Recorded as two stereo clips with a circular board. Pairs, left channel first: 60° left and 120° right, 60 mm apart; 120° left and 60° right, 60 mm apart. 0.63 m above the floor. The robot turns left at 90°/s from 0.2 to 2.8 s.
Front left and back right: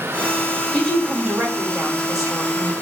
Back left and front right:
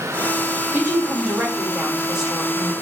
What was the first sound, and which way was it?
A woman speaking, 10° right.